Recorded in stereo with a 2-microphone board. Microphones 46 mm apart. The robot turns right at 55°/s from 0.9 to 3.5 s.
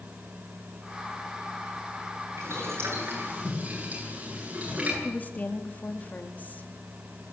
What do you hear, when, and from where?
2.4 s boiling: 85° right, 10 m; by 4.9 s 30° right (ahead or behind), 10 m
5.0 s a woman speaking: 40° left (ahead or behind), 2.0 m